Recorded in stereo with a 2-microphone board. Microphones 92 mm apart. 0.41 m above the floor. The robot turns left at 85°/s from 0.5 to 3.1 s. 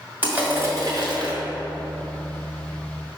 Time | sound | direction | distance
0.2 | crushing | 20° right | 2 m